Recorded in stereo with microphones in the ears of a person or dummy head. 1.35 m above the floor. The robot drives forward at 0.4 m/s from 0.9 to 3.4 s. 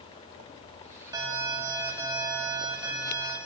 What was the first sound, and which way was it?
An alarm, 15° right (ahead or behind).